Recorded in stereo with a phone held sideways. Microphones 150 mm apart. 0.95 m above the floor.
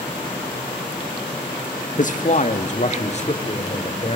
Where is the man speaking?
60° left (ahead or behind), 1.5 m; by 4.2 s 45° left (ahead or behind), 4 m.